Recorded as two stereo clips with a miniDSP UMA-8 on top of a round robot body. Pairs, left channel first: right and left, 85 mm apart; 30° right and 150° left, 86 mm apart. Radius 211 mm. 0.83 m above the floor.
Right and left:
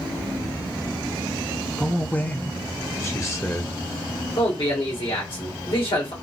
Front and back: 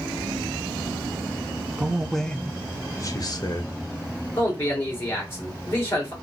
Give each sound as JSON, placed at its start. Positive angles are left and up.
{"t": 1.8, "sound": "a man speaking", "azimuth_deg": -155, "distance_m": 0.8}
{"t": 4.4, "sound": "a man speaking", "azimuth_deg": -90, "distance_m": 2.5}